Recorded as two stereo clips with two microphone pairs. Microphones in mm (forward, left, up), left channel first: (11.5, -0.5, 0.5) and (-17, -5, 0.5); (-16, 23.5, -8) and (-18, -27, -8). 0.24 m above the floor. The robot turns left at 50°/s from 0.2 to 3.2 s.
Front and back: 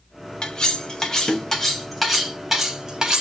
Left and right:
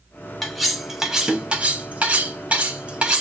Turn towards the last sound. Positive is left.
turn(degrees=-140)